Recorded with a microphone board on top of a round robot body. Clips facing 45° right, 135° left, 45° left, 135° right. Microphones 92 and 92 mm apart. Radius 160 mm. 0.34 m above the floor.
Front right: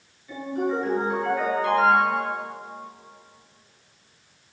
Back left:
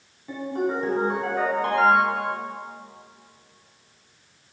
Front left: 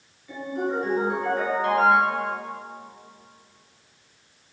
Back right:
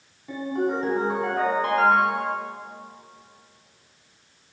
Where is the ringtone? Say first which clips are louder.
Even, back right 2 dB; straight behind, 3.5 m.